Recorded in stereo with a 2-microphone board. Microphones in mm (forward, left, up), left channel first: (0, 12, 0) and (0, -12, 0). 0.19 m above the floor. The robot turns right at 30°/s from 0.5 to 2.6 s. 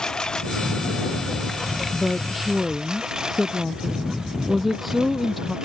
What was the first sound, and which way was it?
A lawn mower, 35° left (ahead or behind).